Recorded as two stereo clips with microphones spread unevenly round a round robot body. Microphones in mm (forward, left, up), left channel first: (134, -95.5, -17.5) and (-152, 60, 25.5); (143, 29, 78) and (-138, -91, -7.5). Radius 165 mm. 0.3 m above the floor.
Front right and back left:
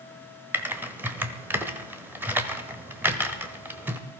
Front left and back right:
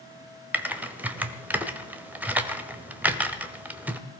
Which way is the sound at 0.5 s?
115° right.